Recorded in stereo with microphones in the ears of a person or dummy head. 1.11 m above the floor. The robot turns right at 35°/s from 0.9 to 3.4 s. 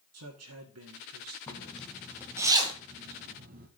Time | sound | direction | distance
0.1 | a man speaking | 100° right | 1.8 m
1.5 | a zipper | 15° left (ahead or behind) | 1.1 m